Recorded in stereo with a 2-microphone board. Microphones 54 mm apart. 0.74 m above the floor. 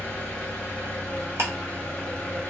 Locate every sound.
0.0 s an engine running: 20° left (ahead or behind), 1.0 m
1.4 s ticking: 60° right (ahead or behind), 0.9 m